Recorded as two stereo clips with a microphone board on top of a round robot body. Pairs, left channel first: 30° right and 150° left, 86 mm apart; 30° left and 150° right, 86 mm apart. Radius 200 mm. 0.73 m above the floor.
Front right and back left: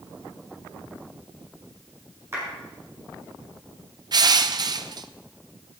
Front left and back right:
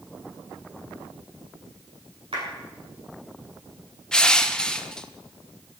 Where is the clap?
150° right, 8 m.